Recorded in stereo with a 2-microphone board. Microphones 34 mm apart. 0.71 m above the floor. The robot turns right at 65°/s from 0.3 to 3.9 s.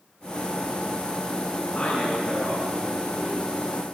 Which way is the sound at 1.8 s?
165° left.